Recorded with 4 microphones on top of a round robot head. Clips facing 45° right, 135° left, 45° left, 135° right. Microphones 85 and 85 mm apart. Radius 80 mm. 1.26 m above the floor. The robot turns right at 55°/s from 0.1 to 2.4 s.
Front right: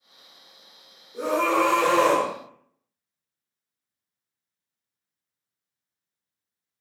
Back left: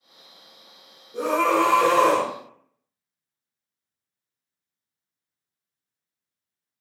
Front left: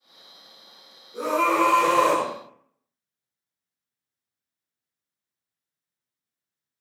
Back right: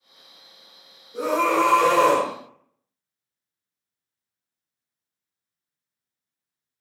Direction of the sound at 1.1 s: 135° left.